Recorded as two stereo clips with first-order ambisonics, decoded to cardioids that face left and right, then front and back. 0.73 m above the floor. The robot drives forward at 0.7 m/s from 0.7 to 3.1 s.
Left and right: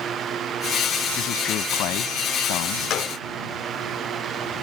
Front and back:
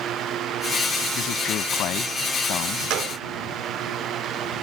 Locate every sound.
1.2 s a man speaking: 45° left; by 2.8 s 50° left
2.9 s a gunshot: 140° left; by 3.2 s 145° left